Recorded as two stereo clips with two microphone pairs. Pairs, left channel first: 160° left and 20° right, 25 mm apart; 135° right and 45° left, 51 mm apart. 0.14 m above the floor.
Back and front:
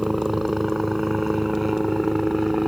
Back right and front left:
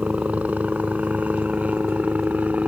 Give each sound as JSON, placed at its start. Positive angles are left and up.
{"t": 0.0, "sound": "a helicopter", "azimuth_deg": 55}